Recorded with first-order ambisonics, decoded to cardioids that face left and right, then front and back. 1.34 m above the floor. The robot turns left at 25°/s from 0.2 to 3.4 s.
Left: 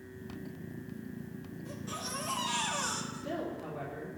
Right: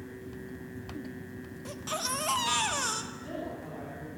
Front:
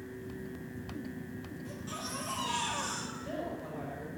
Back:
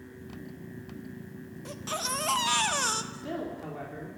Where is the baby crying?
130° right, 1.0 m; by 3.0 s 160° right, 1.0 m.